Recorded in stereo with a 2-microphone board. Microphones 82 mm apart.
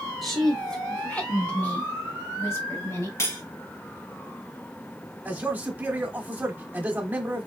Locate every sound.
0.2 s a woman speaking: centre (ahead or behind), 1.5 m; by 3.1 s 35° left (ahead or behind), 2.5 m
3.2 s cutlery clinking: 40° left (ahead or behind), 1.0 m
5.2 s a man speaking: 20° right (ahead or behind), 1.1 m